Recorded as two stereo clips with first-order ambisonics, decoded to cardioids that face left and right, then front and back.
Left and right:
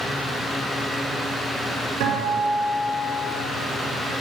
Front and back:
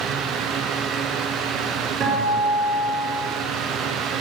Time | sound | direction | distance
2.0 | a guitar | 120° right | 3.5 m